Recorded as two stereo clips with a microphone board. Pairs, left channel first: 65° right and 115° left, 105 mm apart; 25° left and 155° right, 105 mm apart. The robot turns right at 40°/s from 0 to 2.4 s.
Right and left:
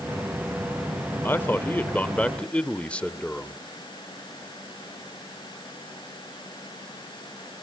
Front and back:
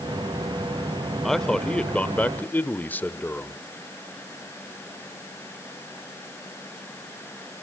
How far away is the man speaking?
About 1.1 m.